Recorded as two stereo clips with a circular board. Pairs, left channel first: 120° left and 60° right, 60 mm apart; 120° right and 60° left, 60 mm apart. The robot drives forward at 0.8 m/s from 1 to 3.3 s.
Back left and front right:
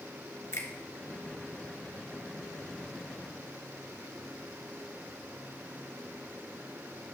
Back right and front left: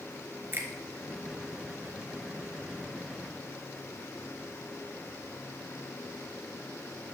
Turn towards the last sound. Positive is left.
turn(degrees=150)